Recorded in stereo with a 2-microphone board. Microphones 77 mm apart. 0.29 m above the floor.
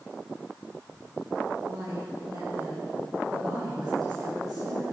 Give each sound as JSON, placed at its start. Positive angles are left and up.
{"t": 1.6, "sound": "a woman speaking", "side_deg": -55, "distance_m": 8.5}